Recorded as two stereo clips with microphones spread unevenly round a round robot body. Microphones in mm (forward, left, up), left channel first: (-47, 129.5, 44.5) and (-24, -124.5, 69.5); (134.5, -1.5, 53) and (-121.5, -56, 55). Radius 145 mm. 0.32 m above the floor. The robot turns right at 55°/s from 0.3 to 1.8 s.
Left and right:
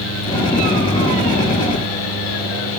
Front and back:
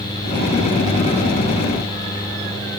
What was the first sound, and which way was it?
Only background noise.